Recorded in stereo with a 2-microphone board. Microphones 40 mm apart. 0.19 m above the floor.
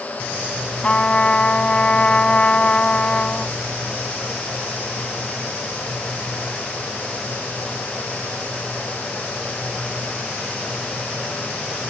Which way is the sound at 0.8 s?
30° left (ahead or behind).